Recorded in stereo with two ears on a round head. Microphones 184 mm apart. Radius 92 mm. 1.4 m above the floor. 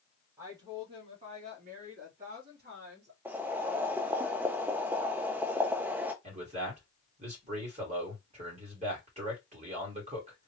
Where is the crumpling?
No crumpling in this recording.